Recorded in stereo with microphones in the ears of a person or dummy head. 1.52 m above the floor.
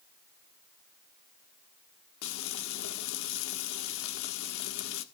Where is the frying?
70° left (ahead or behind), 1.4 m.